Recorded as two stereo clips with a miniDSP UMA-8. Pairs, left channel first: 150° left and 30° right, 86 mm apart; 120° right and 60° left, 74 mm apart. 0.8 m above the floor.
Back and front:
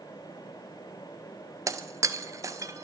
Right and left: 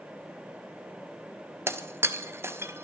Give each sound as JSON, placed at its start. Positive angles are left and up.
{"t": 1.7, "sound": "breaking glass", "azimuth_deg": 15, "distance_m": 1.2}